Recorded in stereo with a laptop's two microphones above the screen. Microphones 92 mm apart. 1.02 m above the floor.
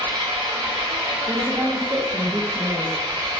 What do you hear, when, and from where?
0.0 s an engine running: 65° right (ahead or behind), 1.3 m
1.3 s a woman speaking: 25° right (ahead or behind), 0.5 m